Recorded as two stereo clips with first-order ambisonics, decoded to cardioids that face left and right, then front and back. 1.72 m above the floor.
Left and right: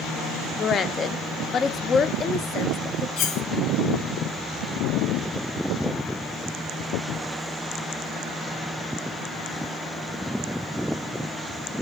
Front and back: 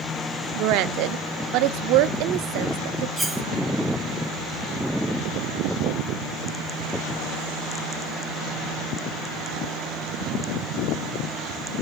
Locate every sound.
0.6 s a woman speaking: 155° left, 0.7 m
3.2 s cutlery clinking: 95° left, 1.4 m